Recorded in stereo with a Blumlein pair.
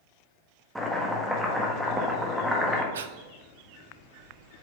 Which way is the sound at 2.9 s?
65° right.